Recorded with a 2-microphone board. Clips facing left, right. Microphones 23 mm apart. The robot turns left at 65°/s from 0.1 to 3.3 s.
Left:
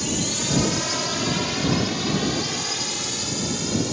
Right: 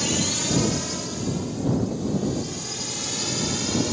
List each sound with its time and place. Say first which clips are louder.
0.0 s a drone: right 1 dB; 15° right (ahead or behind); by 3.9 s 5° right (ahead or behind)